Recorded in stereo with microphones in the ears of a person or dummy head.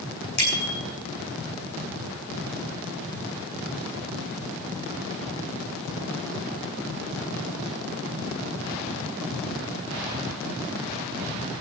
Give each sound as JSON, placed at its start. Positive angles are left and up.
{"t": 0.4, "sound": "a bicycle bell", "side_deg": 55, "distance_m": 8.5}